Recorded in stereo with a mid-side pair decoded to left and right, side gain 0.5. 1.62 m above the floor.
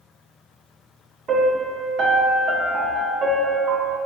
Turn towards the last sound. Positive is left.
turn(degrees=-55)